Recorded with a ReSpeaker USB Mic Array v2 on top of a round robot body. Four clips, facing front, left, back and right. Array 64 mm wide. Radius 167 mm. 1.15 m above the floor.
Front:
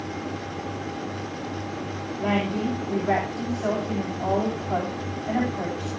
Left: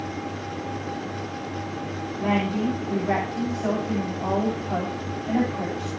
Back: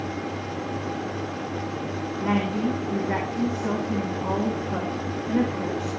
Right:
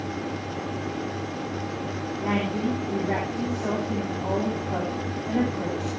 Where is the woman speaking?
25° left, 9.5 m.